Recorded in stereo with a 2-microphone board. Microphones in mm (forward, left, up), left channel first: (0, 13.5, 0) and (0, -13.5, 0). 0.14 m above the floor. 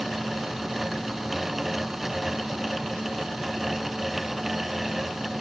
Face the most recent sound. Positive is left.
No sound to turn to.